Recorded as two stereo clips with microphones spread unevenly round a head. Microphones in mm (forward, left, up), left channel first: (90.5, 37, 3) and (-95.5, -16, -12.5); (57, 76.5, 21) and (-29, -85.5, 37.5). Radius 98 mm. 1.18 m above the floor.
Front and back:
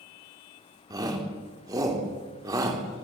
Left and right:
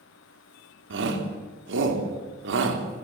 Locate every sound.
0.9 s a shout: 90° right, 3.5 m